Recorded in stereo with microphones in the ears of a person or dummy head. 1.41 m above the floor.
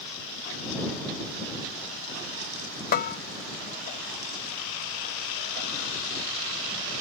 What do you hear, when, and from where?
2.9 s a bell: 40° left (ahead or behind)